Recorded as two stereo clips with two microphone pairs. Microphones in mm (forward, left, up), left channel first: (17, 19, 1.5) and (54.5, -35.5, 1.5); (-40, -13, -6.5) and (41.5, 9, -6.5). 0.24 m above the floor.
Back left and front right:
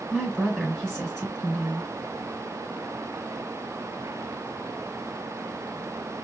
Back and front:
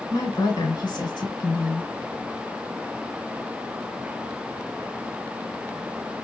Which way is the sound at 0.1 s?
155° right.